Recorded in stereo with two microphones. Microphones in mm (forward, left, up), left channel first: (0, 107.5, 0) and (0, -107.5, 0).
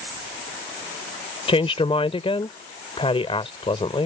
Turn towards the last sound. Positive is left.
turn(degrees=25)  # may be behind; listen again after turning